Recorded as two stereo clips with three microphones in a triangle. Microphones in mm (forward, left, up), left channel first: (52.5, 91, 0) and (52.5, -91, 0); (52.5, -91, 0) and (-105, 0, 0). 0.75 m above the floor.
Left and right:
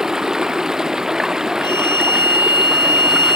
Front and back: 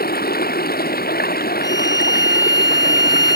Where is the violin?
100° right.